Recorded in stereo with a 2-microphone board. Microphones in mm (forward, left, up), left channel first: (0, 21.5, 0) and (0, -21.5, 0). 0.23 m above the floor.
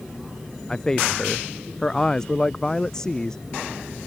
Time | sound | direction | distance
0.7 | a man speaking | 15° left (ahead or behind) | ?